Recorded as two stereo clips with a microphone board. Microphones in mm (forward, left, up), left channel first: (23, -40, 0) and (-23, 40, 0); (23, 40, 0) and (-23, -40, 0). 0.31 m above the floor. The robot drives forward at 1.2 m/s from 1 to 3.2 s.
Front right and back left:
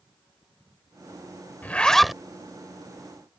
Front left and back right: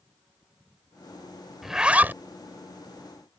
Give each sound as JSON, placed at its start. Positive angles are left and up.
{"t": 1.6, "sound": "a zipper", "azimuth_deg": -35}